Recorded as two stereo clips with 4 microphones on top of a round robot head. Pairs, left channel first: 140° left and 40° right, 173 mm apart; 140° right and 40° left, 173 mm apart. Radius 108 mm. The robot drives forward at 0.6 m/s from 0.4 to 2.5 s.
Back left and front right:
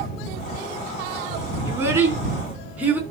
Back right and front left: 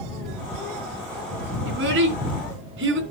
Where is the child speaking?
40° left, 3.5 m; by 3.0 s 45° left, 3 m.